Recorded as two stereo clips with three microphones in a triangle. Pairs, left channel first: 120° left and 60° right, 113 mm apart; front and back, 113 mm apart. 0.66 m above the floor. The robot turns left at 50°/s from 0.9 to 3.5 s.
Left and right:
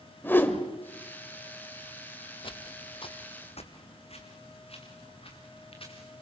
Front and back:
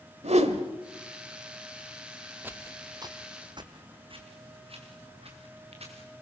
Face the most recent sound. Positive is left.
turn(degrees=155)